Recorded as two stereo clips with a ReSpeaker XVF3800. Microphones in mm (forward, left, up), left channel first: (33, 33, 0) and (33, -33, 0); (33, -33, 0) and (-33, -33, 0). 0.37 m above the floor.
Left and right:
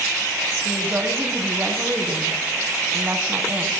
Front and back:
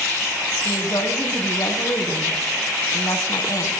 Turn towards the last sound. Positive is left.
turn(degrees=-25)